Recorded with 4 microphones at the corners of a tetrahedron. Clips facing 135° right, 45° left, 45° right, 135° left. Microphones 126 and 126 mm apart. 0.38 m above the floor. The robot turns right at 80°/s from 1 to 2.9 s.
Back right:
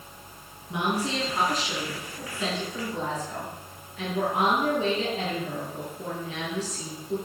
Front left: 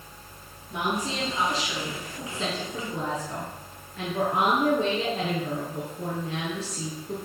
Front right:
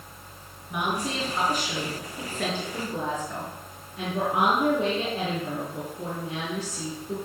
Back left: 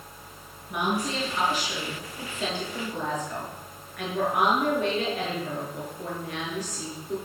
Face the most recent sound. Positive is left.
turn(degrees=15)